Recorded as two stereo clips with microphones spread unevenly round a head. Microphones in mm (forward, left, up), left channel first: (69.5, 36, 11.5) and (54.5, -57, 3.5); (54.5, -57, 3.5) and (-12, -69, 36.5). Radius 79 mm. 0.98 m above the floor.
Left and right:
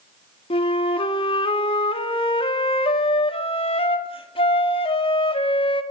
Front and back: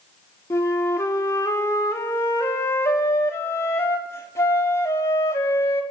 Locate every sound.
0.5 s a flute: 60° left, 2.5 m